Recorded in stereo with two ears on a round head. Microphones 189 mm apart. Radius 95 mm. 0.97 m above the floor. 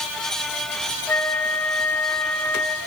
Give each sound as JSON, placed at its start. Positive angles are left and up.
{"t": 1.1, "sound": "a flute", "side_deg": 10, "distance_m": 1.5}